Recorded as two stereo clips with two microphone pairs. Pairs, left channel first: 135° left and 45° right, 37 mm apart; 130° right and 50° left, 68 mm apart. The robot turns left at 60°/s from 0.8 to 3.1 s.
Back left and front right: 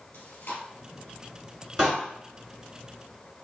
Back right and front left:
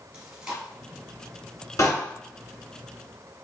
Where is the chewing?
130° left, 2 m.